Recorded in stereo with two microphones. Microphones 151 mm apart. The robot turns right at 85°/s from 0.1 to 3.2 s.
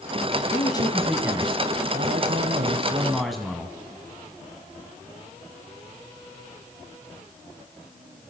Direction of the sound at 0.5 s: 130° left.